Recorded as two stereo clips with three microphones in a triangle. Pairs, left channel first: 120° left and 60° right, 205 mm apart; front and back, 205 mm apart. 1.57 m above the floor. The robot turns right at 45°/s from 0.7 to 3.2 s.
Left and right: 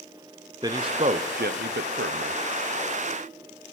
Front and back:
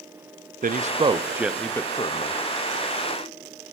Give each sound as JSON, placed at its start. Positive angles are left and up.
{"t": 0.6, "sound": "a man speaking", "azimuth_deg": -130, "distance_m": 0.6}